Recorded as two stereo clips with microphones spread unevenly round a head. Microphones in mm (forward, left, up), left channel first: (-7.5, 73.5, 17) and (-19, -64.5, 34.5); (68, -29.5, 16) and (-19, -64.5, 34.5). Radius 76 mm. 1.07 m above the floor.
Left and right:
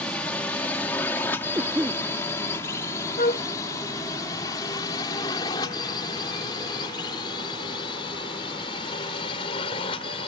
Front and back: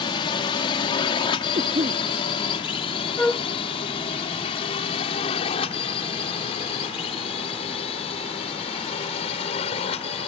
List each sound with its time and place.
0.0 s a drone: 5° left; by 10.3 s 30° left
1.6 s a cough: 170° right
3.2 s a flute: 115° left